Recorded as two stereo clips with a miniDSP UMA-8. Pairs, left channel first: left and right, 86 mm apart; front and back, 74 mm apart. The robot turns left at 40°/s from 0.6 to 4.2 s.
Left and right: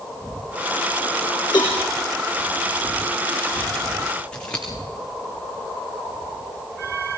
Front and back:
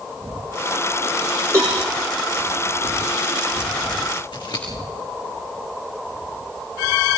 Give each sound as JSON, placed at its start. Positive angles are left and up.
{"t": 1.5, "sound": "a cowbell", "azimuth_deg": 125, "distance_m": 5.5}
{"t": 4.3, "sound": "scissors", "azimuth_deg": 15, "distance_m": 5.0}